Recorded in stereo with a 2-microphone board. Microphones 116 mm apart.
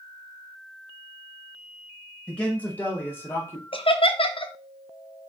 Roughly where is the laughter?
Left.